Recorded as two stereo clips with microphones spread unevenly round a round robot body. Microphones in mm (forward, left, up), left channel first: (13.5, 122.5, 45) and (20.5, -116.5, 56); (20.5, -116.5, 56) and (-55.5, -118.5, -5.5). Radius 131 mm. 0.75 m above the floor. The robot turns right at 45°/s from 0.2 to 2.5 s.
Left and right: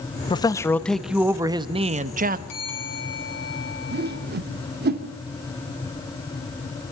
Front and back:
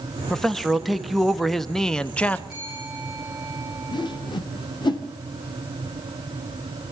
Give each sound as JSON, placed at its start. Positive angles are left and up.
{"t": 0.3, "sound": "a man speaking", "azimuth_deg": 150, "distance_m": 1.2}
{"t": 2.5, "sound": "a bell", "azimuth_deg": 95, "distance_m": 8.0}
{"t": 3.9, "sound": "a whoosh", "azimuth_deg": -40, "distance_m": 2.5}